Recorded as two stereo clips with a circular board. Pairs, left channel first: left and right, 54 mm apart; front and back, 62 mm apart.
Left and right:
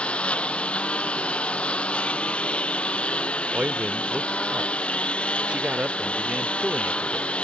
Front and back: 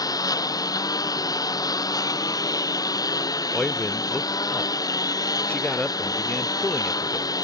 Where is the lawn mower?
20° left.